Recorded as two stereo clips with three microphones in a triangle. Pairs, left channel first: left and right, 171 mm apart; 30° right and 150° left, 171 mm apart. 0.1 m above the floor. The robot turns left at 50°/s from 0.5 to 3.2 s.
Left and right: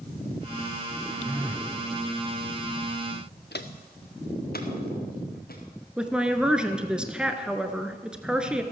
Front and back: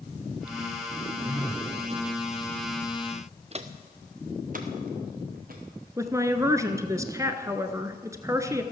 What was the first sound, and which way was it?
A phone buzzing, 150° right.